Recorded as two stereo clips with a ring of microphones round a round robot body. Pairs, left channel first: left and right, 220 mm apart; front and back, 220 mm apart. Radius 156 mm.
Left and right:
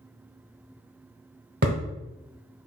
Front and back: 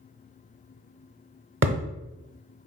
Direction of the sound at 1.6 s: 150° right.